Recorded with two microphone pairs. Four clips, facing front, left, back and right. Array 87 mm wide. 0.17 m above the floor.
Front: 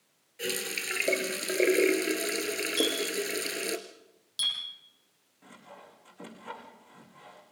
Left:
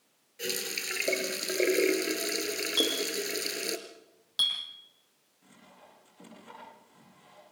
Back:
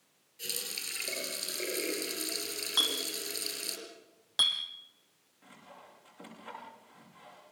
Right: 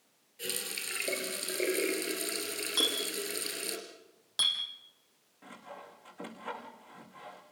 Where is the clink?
165° right, 4 m.